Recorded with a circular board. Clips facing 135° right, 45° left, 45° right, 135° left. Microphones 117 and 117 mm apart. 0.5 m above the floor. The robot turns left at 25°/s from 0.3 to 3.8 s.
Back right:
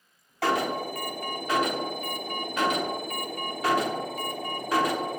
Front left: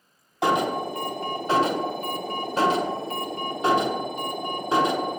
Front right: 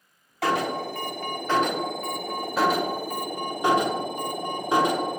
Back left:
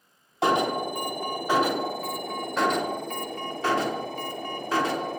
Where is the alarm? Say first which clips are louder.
Front left 3 dB, back left 2 dB; 90° left, 0.8 m; by 5.2 s 5° left, 0.8 m.